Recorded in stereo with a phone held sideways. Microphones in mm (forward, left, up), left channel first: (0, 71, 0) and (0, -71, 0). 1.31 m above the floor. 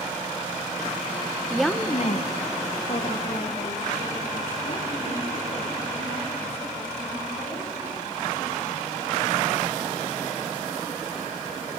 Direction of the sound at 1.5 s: 10° right (ahead or behind).